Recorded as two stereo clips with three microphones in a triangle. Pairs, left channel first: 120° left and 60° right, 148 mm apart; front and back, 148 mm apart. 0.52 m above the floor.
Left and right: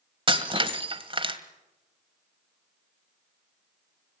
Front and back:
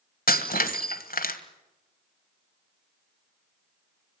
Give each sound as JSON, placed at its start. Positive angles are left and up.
{"t": 0.3, "sound": "breaking glass", "azimuth_deg": -5, "distance_m": 1.5}